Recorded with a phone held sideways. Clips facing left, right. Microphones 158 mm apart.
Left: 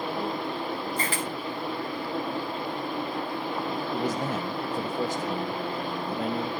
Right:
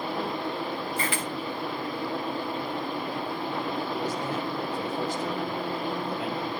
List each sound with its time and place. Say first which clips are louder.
1.0 s a camera shutter: even; 40° left (ahead or behind), 2.0 m
3.9 s a man speaking: left 2 dB; 45° left (ahead or behind), 1.2 m